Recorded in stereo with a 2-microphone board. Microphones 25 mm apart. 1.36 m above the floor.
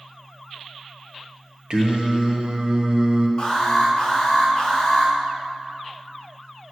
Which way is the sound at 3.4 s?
35° left (ahead or behind).